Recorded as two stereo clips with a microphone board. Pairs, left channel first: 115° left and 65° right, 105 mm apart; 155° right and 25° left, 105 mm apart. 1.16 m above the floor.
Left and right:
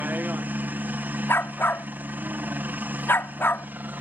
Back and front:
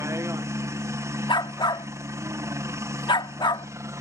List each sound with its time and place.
0.0 s a helicopter: 10° right
1.3 s a dog barking: 175° left